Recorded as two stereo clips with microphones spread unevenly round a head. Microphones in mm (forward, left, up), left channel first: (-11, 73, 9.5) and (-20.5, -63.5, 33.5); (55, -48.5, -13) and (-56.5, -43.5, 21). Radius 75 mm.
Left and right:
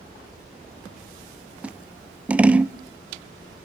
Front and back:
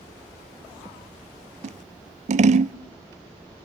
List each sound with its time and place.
1.6 s scissors: straight behind, 0.6 m